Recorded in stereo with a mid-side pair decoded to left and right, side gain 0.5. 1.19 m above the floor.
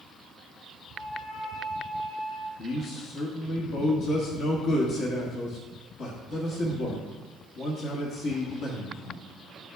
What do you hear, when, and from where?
0.9 s a flute: 70° left, 1.8 m
2.6 s a man speaking: 60° left, 1.3 m